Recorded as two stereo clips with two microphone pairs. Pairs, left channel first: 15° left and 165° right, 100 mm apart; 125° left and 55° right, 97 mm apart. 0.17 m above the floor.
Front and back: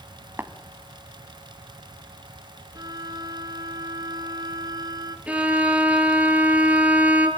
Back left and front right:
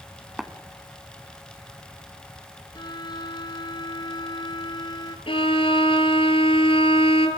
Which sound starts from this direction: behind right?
Tapping, at 0.4 s.